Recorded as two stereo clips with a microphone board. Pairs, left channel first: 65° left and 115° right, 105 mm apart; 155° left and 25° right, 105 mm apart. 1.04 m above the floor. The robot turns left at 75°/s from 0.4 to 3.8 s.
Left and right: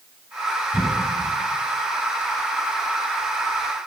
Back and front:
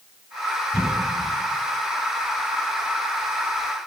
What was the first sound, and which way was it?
A cough, 170° left.